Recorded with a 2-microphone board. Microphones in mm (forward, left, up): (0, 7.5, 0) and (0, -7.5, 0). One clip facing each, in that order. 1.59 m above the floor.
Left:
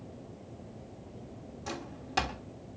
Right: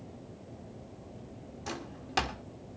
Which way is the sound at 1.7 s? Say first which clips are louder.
Even; 10° right (ahead or behind).